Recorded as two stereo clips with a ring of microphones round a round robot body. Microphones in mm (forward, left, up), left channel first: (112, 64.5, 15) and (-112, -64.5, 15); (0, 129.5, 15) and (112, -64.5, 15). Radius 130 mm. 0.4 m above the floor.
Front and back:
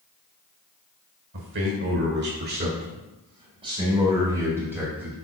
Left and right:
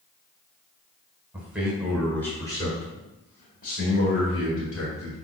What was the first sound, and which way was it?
A man speaking, 140° right.